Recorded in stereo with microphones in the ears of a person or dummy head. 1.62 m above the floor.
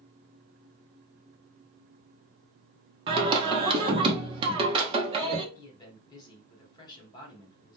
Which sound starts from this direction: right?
Singing, at 3.1 s.